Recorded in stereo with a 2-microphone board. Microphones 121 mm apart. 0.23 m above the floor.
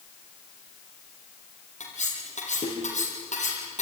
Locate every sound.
1.8 s cutlery clinking: 75° left (ahead or behind), 5.5 m